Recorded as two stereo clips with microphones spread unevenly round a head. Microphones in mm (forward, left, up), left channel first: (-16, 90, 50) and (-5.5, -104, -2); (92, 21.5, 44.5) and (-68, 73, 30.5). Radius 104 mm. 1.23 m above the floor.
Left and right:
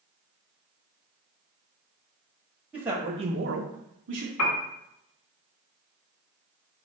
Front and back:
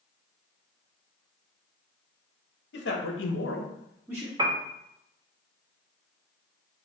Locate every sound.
2.7 s a man speaking: straight ahead, 1.3 m; by 4.3 s 125° right, 1.0 m
4.4 s a piano: 95° left, 0.7 m